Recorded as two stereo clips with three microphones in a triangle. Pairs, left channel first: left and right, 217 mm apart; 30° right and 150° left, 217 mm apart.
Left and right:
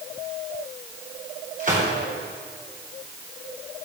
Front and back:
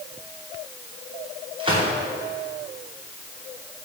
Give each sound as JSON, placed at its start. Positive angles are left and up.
{"t": 1.6, "sound": "a gunshot", "azimuth_deg": -145, "distance_m": 5.0}